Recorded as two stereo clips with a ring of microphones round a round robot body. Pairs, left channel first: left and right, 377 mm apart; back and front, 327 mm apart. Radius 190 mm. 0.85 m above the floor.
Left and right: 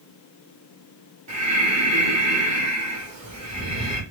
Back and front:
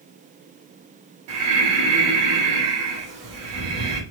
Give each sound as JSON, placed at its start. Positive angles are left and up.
{"t": 1.3, "sound": "breathing", "azimuth_deg": -15, "distance_m": 1.3}